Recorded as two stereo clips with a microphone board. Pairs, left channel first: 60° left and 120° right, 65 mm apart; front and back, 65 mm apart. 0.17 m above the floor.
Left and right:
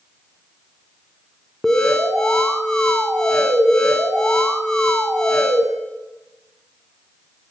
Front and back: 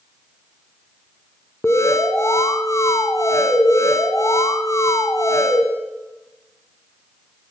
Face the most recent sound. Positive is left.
turn(degrees=-20)